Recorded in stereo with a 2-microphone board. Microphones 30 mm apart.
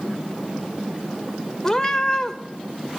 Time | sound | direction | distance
1.6 | a cat meowing | 15° left (ahead or behind) | 0.8 m